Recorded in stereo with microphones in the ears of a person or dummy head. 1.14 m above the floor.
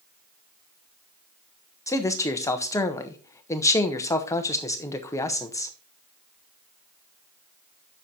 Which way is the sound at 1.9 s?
15° left (ahead or behind).